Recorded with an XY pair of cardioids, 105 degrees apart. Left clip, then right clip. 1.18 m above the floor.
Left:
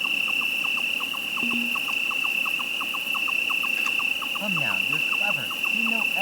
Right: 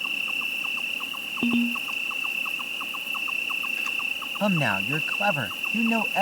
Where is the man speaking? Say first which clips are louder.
Right 2 dB; 55° right.